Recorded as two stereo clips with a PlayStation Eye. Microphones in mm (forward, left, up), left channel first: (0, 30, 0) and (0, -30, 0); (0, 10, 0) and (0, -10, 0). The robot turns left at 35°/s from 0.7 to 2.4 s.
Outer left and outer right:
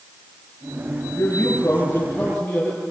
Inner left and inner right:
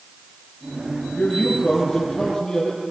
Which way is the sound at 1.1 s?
60° left.